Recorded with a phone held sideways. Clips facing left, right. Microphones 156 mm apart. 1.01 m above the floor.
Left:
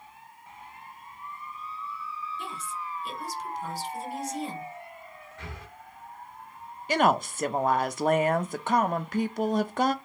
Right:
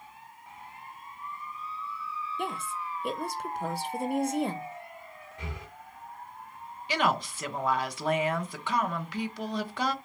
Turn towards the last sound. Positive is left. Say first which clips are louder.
# left 5 dB
turn(degrees=45)  # may be behind; listen again after turning